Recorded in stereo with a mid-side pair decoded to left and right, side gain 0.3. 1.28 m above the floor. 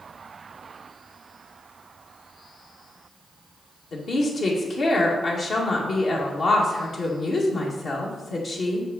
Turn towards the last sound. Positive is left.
turn(degrees=70)